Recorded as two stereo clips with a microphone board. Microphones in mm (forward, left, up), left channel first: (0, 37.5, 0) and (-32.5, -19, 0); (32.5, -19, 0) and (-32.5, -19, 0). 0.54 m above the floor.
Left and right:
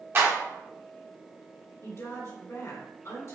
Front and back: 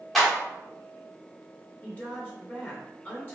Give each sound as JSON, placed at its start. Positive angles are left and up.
{"t": 0.1, "sound": "a clap", "azimuth_deg": -90, "distance_m": 1.3}
{"t": 1.8, "sound": "a woman speaking", "azimuth_deg": 50, "distance_m": 2.0}